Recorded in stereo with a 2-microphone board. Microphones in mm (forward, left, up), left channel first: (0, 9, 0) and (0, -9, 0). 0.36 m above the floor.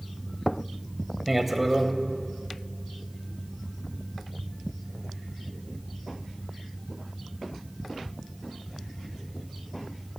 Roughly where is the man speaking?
Centre.